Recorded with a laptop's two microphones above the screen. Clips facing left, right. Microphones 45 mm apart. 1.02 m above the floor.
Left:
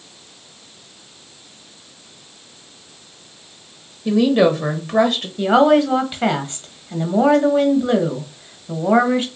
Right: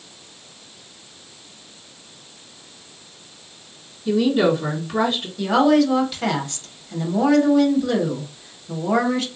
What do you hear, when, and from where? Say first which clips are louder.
4.0 s a woman speaking: left 3 dB; 60° left (ahead or behind), 1.0 m
5.4 s a woman speaking: left 3 dB; 25° left (ahead or behind), 1.0 m